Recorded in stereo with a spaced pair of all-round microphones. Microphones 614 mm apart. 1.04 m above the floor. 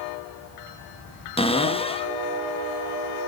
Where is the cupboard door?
10° left (ahead or behind), 0.5 m.